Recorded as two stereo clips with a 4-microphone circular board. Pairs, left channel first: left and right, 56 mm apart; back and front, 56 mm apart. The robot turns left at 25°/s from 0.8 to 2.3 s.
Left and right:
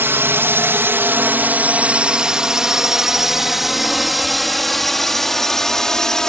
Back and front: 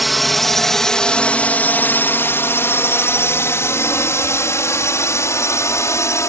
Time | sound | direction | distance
0.0 | a drone | 90° right | ?